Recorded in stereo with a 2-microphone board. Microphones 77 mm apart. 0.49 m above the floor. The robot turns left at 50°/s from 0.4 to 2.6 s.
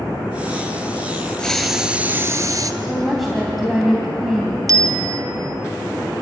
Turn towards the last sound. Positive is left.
turn(degrees=-50)  # may be behind; listen again after turning